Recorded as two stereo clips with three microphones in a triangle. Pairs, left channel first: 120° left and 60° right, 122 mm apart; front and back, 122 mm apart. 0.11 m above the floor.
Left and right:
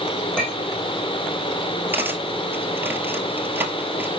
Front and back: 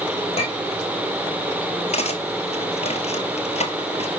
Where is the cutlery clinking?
10° left, 1.3 m.